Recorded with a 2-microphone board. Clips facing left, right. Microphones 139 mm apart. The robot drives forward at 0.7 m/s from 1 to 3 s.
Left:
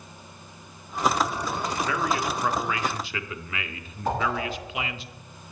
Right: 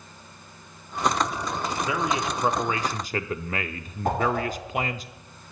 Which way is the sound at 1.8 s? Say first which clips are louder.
Even; 15° right (ahead or behind).